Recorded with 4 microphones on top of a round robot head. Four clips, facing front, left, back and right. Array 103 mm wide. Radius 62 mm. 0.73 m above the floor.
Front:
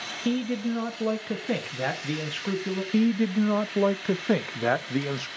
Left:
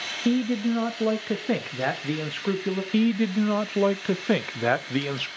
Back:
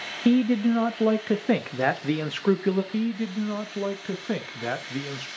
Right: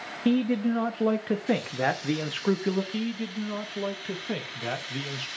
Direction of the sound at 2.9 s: 60° left.